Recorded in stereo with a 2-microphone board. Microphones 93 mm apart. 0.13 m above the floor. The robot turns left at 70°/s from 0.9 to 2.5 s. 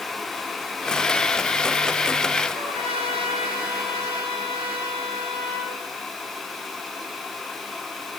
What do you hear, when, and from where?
2.5 s a trumpet: 75° right (ahead or behind), 5.5 m